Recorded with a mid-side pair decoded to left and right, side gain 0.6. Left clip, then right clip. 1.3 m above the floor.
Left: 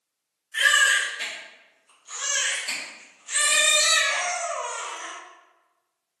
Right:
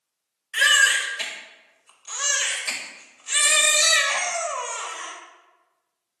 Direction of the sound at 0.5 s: 65° right.